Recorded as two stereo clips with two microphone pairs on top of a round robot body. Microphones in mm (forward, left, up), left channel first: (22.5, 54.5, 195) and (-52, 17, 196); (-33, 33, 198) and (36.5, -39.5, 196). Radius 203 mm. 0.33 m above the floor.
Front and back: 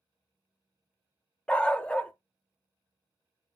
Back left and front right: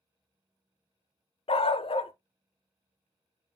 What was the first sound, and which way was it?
A dog barking, 105° left.